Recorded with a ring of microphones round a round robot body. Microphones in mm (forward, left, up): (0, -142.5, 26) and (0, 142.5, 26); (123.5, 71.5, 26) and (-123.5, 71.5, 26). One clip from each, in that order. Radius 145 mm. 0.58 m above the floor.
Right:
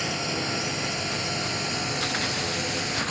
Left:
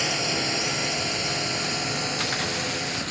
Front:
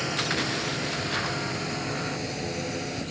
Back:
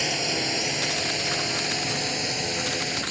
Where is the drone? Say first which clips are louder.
Left 3 dB, back 2 dB; 160° left; by 3.1 s 175° right.